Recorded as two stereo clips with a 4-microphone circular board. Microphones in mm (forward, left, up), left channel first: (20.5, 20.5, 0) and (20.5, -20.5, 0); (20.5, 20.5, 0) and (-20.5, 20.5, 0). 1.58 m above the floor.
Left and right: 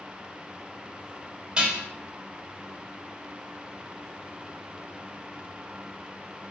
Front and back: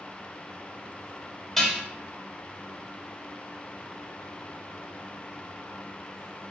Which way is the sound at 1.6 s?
70° right.